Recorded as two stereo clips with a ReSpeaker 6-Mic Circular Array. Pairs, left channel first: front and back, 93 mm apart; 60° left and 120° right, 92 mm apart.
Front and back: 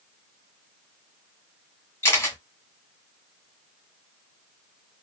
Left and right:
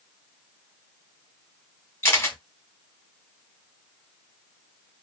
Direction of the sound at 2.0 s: 30° left.